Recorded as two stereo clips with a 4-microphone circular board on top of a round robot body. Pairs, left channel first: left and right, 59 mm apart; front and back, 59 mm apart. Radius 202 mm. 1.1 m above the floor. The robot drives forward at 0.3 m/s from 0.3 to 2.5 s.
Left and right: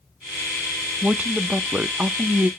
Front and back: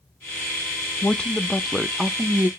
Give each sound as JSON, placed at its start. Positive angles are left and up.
{"t": 1.0, "sound": "a woman speaking", "azimuth_deg": -35, "distance_m": 0.6}